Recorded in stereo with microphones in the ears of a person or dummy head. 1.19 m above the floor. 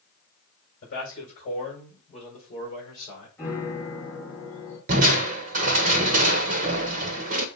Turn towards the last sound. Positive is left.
turn(degrees=-45)  # may be behind; listen again after turning